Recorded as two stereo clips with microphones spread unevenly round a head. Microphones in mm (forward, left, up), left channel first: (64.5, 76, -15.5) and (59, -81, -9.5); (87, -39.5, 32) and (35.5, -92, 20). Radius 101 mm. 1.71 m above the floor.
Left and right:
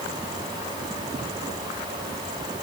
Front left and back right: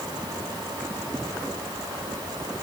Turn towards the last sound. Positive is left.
No sound to turn to.